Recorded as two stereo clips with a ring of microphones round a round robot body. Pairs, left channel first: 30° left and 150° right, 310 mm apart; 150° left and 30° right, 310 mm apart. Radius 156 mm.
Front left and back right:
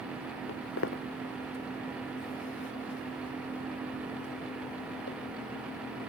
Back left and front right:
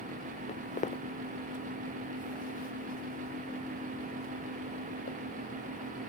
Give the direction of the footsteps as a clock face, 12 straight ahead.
9 o'clock.